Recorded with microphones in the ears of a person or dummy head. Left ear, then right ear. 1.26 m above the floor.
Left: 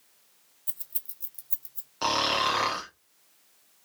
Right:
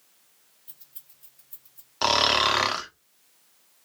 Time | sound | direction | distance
0.7 | keys jangling | 25° left (ahead or behind) | 0.5 m
2.0 | snoring | 25° right (ahead or behind) | 0.6 m